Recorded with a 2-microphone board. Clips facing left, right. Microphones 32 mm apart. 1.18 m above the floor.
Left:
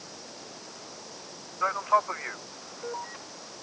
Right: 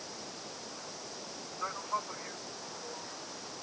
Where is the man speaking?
35° left (ahead or behind); by 3.2 s 55° left (ahead or behind).